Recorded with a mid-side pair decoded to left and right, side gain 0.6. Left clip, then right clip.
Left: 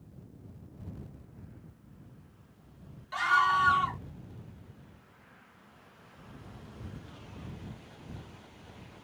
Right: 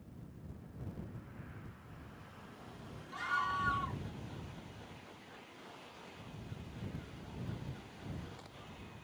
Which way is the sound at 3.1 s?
55° left.